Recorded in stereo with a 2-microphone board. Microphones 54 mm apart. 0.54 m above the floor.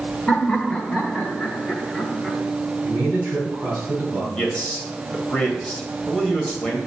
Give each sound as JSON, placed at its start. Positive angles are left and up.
{"t": 0.3, "sound": "laughter", "side_deg": 15, "distance_m": 1.3}
{"t": 2.8, "sound": "a man speaking", "side_deg": -35, "distance_m": 3.5}
{"t": 4.3, "sound": "a man speaking", "side_deg": 20, "distance_m": 2.5}